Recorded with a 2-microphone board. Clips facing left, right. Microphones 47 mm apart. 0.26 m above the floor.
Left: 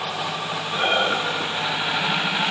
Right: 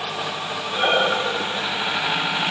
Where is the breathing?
15° right (ahead or behind), 1.0 m.